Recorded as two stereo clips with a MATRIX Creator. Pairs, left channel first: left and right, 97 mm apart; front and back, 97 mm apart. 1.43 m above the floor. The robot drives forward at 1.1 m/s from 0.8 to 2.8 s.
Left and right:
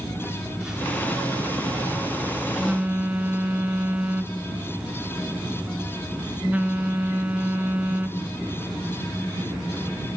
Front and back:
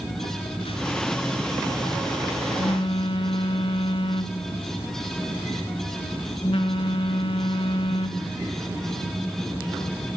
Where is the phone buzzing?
10° right, 4 m; by 8.3 s 15° right, 1.9 m.